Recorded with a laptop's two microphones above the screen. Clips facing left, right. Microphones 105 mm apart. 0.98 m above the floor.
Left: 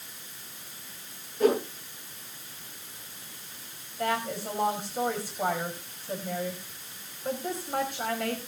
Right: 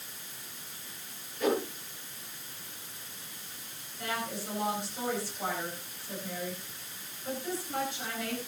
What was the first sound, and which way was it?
A whoosh, 35° left (ahead or behind).